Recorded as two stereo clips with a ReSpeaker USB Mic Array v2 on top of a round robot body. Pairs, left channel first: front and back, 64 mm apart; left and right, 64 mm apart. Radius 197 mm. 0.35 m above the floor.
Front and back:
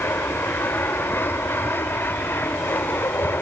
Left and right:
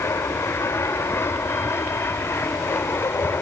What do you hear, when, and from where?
0.0 s an aircraft: 50° left; by 3.4 s 45° left